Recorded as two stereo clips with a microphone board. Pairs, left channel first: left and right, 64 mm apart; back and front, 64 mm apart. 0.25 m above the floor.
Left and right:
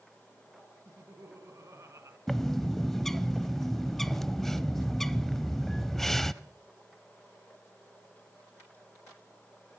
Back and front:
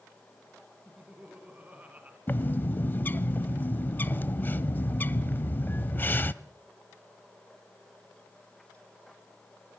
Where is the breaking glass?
I don't hear breaking glass.